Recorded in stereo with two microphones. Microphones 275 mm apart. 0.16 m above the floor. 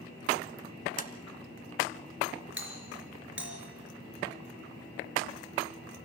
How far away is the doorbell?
About 4 m.